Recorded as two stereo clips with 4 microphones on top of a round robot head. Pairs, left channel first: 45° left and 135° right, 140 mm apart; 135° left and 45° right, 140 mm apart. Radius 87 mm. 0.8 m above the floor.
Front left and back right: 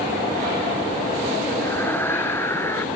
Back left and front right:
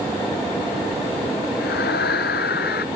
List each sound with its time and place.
1.6 s a scream: 120° left